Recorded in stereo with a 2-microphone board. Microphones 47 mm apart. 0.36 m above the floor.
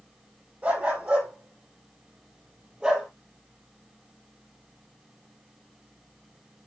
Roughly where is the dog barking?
Right.